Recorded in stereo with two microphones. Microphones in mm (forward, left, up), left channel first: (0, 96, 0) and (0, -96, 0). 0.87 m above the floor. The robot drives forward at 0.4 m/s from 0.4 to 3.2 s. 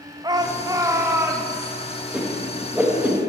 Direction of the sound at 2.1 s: 5° right (ahead or behind).